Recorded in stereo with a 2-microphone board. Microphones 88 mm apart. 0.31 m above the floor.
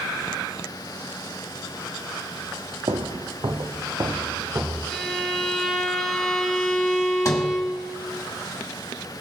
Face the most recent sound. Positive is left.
turn(degrees=40)  # may be behind; listen again after turning